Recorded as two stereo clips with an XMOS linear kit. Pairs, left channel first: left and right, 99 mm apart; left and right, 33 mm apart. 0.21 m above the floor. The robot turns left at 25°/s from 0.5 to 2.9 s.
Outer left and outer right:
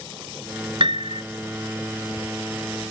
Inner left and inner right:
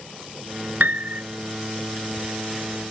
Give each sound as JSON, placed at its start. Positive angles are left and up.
{"t": 0.8, "sound": "a piano", "side_deg": -70}